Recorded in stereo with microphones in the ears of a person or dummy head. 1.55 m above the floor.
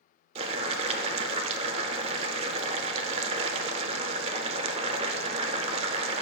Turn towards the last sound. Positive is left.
turn(degrees=-35)  # may be behind; listen again after turning